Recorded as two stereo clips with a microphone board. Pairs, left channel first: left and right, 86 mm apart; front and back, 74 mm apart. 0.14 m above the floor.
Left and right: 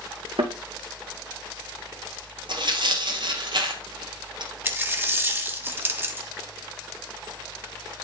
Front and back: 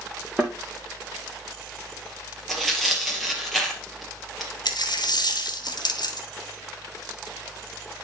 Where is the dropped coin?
25° right, 1.3 m.